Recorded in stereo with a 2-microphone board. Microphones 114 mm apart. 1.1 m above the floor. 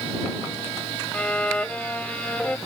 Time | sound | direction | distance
1.1 | a violin | 10° left (ahead or behind) | ?